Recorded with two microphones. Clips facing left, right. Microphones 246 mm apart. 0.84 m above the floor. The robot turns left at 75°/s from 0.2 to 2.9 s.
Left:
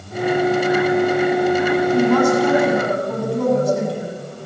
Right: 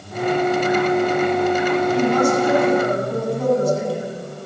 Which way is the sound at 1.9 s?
140° left.